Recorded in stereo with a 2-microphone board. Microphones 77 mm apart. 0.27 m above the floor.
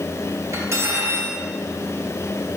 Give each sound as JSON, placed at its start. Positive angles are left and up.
{"t": 0.5, "sound": "cutlery clinking", "side_deg": -40, "distance_m": 3.0}